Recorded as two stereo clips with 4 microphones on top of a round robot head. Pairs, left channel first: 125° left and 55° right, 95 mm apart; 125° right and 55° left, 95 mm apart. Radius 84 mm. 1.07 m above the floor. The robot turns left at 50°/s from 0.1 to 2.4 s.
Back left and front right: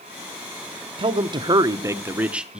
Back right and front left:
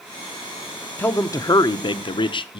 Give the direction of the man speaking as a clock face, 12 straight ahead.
2 o'clock.